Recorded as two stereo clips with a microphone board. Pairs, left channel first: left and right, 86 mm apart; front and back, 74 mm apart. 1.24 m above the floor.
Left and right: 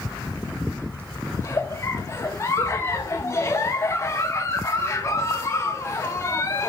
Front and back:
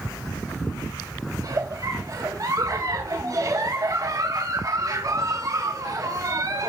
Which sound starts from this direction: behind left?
A giggle, at 1.4 s.